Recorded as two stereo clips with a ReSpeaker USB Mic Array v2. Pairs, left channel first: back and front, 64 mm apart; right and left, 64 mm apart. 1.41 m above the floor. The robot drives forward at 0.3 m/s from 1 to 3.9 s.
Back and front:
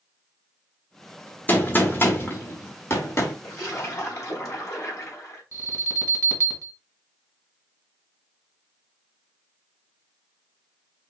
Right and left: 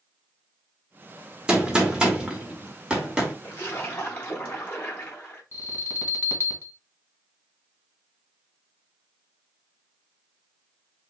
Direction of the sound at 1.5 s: 150° left.